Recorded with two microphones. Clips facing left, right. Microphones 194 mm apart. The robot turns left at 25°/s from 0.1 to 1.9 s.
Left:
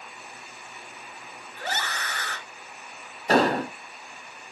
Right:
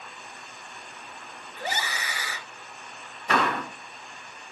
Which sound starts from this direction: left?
An explosion, at 3.3 s.